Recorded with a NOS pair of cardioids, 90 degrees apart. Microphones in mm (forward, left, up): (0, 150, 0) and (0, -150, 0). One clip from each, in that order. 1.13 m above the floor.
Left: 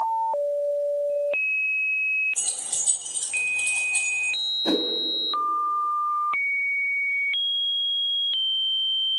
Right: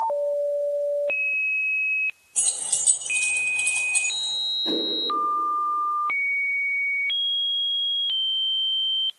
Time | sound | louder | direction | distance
2.4 | keys jangling | right 2 dB | 20° right | 4.5 m
4.7 | a whoosh | left 1 dB | 50° left | 3 m